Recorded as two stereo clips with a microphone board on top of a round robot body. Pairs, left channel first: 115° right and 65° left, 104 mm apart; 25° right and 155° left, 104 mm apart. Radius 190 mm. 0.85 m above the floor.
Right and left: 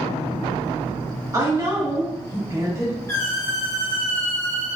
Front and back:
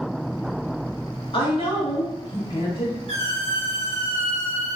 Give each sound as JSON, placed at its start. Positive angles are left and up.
{"t": 1.3, "sound": "a woman speaking", "azimuth_deg": 10, "distance_m": 1.5}
{"t": 3.1, "sound": "a squeak", "azimuth_deg": 180, "distance_m": 0.9}